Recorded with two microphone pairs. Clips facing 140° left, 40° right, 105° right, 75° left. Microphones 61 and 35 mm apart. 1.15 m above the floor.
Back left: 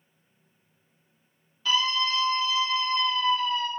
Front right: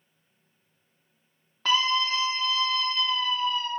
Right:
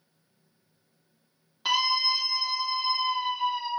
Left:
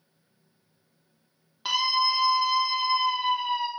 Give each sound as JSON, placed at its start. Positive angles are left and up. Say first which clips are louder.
{"t": 1.6, "sound": "a scream", "louder": "front right 1 dB, left 1 dB", "azimuth_deg": -15, "distance_m": 1.1}